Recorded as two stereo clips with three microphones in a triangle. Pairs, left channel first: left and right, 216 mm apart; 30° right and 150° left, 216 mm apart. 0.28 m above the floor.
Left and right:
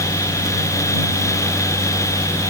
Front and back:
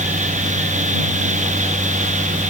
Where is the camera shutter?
No camera shutter in this recording.